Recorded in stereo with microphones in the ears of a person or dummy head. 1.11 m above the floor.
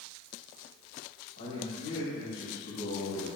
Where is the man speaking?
65° left (ahead or behind), 3 m.